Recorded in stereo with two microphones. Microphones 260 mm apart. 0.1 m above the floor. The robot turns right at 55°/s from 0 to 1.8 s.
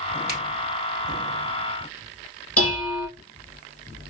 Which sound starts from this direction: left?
Dishes clattering, at 2.6 s.